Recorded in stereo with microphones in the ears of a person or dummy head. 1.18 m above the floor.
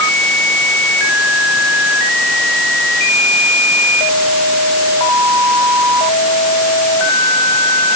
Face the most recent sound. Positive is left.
No sound to turn to.